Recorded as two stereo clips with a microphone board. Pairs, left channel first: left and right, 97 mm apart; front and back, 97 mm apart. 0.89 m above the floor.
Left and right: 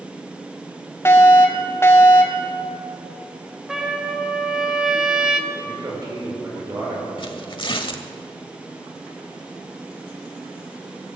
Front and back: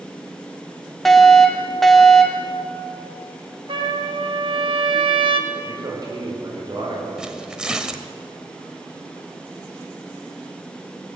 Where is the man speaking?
140° right, 4 m.